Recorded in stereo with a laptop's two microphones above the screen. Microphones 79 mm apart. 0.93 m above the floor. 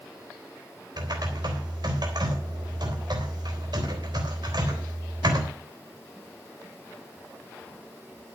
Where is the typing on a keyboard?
65° right (ahead or behind), 3.5 m.